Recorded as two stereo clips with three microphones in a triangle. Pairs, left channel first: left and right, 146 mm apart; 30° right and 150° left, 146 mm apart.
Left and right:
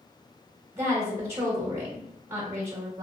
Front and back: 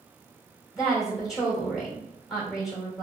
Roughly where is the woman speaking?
Behind right.